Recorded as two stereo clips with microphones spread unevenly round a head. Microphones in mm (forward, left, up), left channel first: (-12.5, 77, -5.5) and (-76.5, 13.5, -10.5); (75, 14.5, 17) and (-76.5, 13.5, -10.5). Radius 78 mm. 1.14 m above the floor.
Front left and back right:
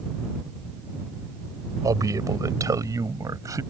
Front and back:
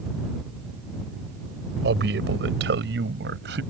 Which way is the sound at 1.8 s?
175° left.